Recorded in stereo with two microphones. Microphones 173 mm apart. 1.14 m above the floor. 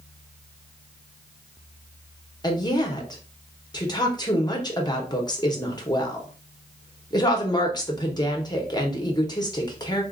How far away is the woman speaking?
About 1.0 m.